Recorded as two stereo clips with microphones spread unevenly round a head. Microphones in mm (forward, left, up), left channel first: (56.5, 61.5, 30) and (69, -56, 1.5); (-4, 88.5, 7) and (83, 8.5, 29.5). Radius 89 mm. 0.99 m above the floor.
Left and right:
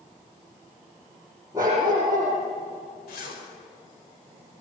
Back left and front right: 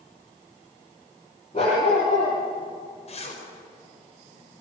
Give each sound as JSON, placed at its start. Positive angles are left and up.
{"t": 1.5, "sound": "a dog barking", "azimuth_deg": -160, "distance_m": 7.5}
{"t": 3.1, "sound": "a zipper", "azimuth_deg": 110, "distance_m": 5.0}